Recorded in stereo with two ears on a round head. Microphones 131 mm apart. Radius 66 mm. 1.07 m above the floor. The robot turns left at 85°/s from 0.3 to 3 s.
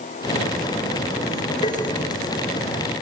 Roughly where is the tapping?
Left.